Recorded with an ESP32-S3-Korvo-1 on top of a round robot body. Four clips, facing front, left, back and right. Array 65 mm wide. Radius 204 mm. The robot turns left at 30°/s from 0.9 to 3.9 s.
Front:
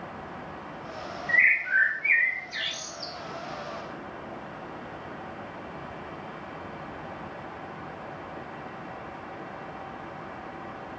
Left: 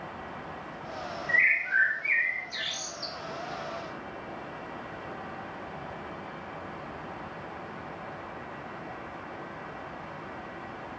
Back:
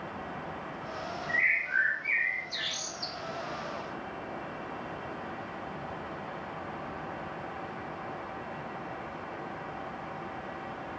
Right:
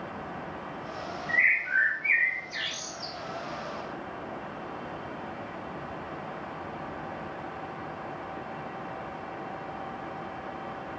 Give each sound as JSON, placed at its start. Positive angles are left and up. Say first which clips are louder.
{"t": 1.3, "sound": "a bird", "louder": "even, front 6 dB", "azimuth_deg": 15, "distance_m": 0.7}